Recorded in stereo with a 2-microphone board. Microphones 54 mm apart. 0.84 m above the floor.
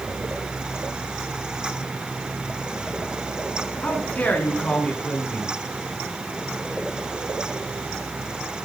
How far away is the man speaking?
About 9.5 m.